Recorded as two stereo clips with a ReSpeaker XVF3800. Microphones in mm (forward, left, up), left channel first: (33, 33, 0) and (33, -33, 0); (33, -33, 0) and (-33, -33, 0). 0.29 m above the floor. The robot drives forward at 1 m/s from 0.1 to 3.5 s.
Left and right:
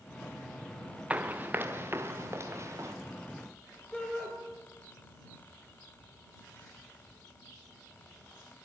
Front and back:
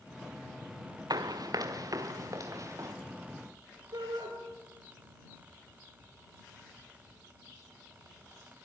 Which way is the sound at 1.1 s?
160° right.